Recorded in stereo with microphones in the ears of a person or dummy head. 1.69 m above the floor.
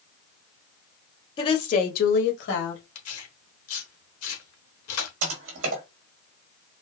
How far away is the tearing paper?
About 1.1 m.